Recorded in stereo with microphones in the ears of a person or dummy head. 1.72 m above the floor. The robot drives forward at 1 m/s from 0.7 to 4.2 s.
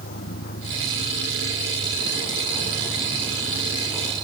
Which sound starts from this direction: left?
A vehicle, at 0.0 s.